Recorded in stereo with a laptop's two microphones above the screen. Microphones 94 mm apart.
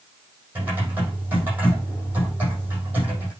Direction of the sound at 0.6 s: 20° right (ahead or behind).